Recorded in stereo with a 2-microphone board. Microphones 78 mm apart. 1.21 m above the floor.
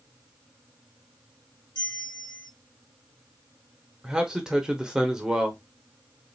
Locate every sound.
1.8 s a bell: 70° left (ahead or behind), 2 m
4.0 s a man speaking: 10° right (ahead or behind), 0.9 m